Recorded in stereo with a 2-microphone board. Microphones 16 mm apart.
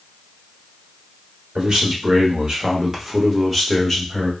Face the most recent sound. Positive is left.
turn(degrees=5)  # may be behind; listen again after turning